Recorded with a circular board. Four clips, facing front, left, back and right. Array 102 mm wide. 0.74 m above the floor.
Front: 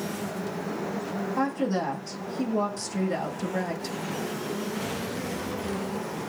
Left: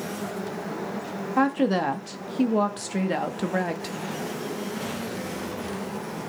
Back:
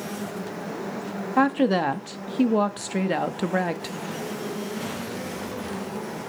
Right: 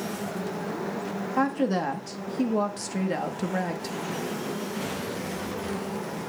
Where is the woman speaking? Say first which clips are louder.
Left 3 dB, back 7 dB; 160° left, 1.4 m.